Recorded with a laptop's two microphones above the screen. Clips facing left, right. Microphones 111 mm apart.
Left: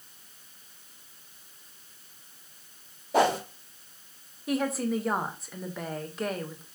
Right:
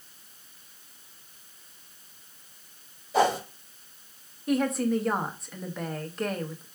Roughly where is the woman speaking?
Centre.